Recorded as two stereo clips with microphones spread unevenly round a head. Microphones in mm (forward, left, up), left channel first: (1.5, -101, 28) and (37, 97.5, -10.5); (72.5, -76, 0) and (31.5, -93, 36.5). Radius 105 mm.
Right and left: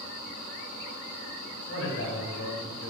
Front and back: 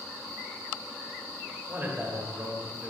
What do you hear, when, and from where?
1.7 s a man speaking: 75° right, 1.1 m